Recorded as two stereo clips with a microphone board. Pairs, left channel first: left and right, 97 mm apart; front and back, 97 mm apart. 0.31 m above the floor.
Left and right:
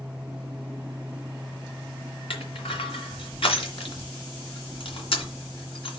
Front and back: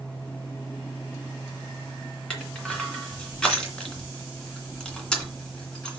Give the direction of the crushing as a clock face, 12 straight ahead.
9 o'clock.